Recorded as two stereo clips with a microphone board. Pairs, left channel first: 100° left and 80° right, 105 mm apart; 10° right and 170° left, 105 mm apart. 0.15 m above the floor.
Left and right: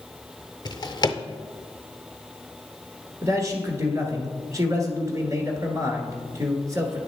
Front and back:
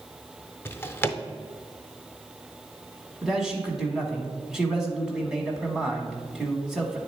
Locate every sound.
0.7 s a drawer: 55° left, 0.5 m
3.2 s a man speaking: 105° right, 1.3 m